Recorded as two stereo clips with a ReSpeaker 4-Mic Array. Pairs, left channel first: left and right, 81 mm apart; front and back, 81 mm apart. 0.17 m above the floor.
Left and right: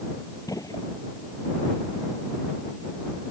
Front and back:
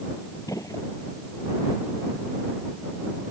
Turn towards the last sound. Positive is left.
turn(degrees=50)